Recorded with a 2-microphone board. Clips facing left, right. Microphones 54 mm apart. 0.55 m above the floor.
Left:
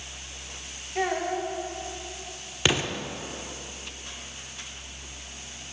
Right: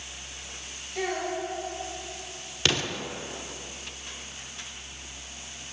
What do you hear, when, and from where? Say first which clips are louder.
0.9 s a child speaking: left 3 dB; 35° left (ahead or behind), 2.5 m
2.6 s an explosion: left 2 dB; 15° left (ahead or behind), 0.7 m